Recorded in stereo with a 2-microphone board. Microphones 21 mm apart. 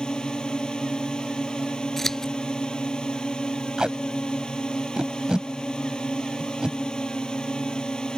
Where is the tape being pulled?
45° right (ahead or behind).